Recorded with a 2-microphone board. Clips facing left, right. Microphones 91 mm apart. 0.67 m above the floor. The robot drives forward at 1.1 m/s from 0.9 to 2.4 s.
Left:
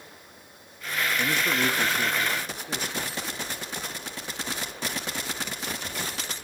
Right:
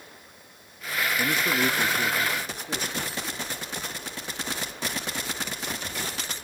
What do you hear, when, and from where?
1.2 s a man speaking: 5° right (ahead or behind), 0.5 m